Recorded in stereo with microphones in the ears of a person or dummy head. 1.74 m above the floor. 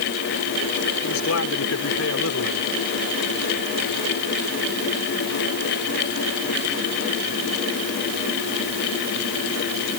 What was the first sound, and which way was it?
A man speaking, 80° left.